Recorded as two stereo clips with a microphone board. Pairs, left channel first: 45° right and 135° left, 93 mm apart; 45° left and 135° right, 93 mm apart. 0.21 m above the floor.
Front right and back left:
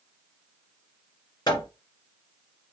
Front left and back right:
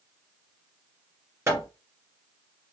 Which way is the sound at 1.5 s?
80° right.